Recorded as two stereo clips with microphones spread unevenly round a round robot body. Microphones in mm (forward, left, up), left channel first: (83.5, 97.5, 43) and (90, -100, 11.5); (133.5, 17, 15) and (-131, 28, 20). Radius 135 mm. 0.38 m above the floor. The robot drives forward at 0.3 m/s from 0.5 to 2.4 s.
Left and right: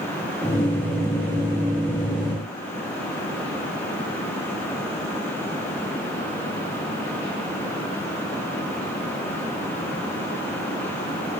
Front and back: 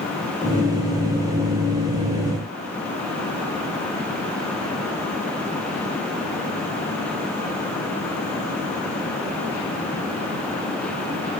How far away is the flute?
I don't hear a flute.